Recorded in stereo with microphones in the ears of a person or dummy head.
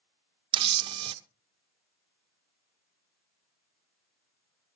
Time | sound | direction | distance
0.5 | a camera shutter | 30° right (ahead or behind) | 0.8 m